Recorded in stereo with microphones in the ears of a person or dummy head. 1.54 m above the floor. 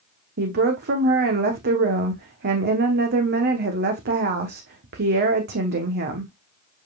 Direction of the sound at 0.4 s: 50° right (ahead or behind).